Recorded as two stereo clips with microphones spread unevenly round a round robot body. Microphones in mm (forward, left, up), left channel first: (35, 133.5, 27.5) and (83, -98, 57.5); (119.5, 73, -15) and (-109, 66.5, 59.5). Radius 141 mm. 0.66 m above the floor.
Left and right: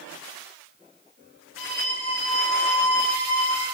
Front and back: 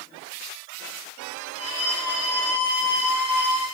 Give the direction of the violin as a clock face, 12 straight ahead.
9 o'clock.